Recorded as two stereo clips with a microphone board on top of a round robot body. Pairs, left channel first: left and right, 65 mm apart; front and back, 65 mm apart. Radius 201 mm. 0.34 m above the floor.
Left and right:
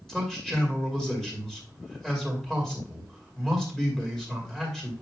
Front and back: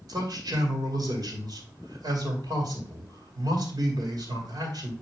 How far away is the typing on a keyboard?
No typing on a keyboard in this recording.